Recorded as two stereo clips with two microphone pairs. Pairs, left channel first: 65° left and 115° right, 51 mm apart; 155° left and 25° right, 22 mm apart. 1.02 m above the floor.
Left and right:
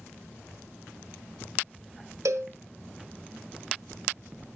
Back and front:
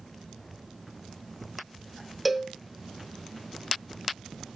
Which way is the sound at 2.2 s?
115° right.